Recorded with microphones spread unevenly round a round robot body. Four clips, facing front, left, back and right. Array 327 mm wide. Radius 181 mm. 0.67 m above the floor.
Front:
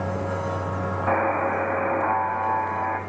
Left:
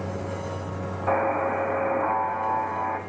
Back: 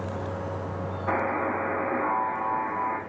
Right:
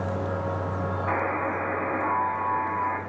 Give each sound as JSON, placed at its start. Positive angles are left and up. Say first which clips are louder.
{"t": 1.1, "sound": "a buzzer", "louder": "left 5 dB, front 4 dB", "azimuth_deg": 25, "distance_m": 5.0}